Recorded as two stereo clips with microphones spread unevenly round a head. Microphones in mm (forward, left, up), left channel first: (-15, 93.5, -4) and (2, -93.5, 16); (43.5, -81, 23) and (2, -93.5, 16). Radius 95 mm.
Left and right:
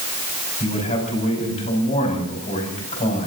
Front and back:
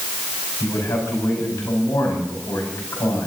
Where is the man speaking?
40° left, 5 m.